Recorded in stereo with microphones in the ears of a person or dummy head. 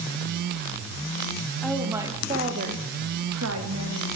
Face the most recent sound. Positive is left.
turn(degrees=-80)